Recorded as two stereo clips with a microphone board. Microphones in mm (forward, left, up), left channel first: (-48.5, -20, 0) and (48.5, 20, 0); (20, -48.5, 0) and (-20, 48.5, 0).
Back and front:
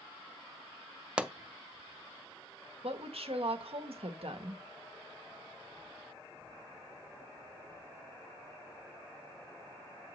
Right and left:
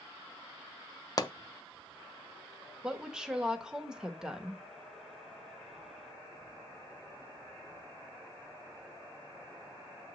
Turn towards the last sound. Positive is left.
turn(degrees=30)